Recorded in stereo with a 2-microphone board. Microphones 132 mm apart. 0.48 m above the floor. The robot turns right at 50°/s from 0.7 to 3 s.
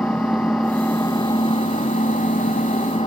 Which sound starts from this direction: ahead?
An engine running, at 0.0 s.